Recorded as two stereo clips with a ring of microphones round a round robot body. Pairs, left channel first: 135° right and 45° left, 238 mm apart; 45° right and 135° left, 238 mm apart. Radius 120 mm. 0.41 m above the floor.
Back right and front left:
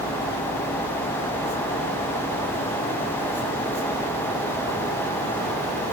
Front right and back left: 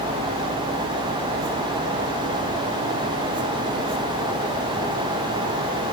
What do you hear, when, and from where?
Only background noise.